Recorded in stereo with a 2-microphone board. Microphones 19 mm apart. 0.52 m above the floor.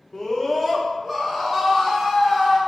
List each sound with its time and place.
0.1 s a scream: 15° left (ahead or behind), 0.8 m; by 2.6 s 15° right (ahead or behind), 1.8 m